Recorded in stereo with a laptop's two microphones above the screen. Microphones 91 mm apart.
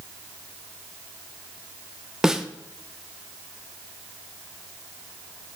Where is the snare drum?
5° right (ahead or behind), 0.6 m.